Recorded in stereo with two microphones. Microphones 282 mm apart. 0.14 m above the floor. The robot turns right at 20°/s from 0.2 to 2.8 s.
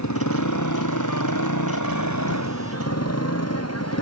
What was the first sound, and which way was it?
A motorcycle, 70° left.